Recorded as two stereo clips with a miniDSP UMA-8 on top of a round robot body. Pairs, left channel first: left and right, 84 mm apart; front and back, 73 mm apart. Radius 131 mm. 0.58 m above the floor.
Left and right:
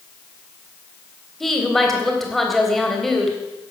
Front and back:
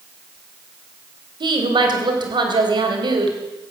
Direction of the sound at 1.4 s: Straight behind.